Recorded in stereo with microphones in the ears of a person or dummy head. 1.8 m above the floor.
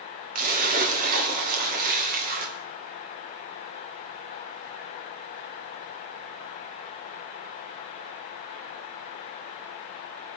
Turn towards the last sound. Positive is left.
turn(degrees=-50)  # may be behind; listen again after turning